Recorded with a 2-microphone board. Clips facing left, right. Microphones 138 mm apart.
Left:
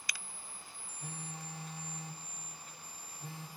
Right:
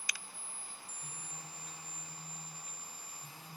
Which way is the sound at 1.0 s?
65° left (ahead or behind).